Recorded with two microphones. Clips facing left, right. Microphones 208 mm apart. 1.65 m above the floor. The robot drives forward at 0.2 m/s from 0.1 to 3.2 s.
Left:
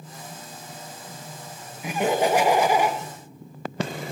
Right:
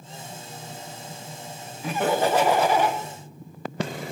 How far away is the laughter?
About 1.4 m.